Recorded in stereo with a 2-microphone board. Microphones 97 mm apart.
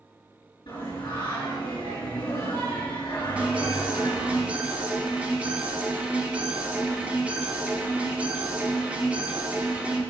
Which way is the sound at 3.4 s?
15° right (ahead or behind).